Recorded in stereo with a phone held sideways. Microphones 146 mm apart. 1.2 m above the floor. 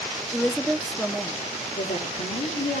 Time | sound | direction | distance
0.3 | a woman speaking | 5° left (ahead or behind) | 0.7 m
1.8 | a woman speaking | 65° left (ahead or behind) | 2.5 m